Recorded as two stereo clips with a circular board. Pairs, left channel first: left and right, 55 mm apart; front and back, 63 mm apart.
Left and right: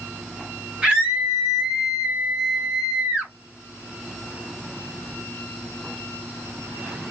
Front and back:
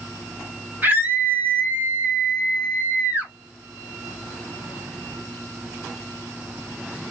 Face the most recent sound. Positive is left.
turn(degrees=-150)